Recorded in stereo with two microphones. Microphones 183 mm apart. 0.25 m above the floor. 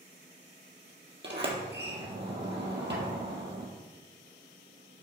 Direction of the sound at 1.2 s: 75° right (ahead or behind).